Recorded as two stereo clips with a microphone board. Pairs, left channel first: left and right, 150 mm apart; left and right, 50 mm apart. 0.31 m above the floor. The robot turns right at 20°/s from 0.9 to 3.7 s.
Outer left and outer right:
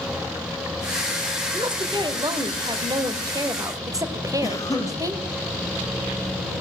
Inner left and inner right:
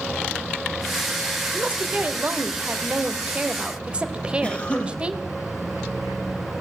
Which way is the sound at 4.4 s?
20° left (ahead or behind).